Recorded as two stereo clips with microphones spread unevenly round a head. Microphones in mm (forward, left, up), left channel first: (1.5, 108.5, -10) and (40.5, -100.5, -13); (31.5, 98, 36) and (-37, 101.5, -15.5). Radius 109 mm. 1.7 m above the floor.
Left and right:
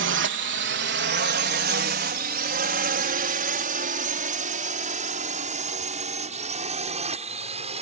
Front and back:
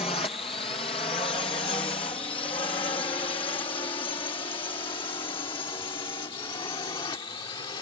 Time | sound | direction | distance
0.0 | a drone | 50° right | ?